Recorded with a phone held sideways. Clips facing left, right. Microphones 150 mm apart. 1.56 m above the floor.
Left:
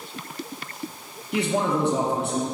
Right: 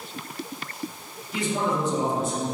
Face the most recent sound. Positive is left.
turn(degrees=65)  # may be behind; listen again after turning